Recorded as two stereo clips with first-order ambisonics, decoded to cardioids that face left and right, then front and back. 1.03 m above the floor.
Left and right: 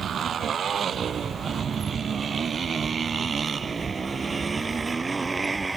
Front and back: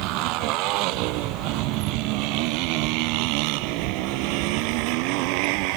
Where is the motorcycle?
150° right; by 5.8 s 170° right.